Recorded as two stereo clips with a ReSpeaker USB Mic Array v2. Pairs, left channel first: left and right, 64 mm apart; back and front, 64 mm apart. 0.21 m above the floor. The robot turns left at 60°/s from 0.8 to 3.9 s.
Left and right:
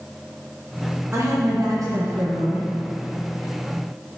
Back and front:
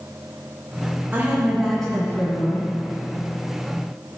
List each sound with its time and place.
1.1 s a woman speaking: 50° right, 2.5 m; by 2.7 s 145° right, 2.5 m